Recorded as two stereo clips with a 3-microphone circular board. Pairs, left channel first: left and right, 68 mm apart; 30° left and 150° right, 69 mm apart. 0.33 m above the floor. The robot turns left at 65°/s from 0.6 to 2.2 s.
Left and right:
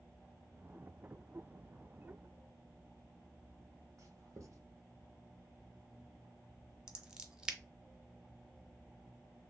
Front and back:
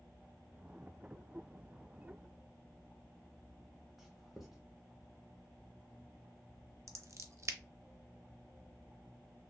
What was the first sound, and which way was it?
Writing, 65° right.